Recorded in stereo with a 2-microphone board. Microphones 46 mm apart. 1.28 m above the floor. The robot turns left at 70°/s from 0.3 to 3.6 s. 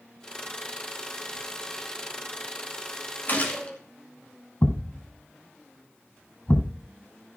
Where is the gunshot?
45° left (ahead or behind), 2.5 m; by 3.8 s 20° left (ahead or behind), 2.5 m.